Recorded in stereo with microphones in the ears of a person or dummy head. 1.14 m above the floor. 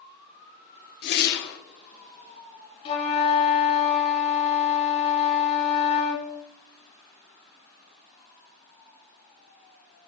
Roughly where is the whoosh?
Left.